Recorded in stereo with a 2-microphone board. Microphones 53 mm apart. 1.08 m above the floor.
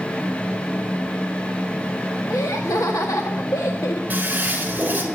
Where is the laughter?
80° left, 1.7 m.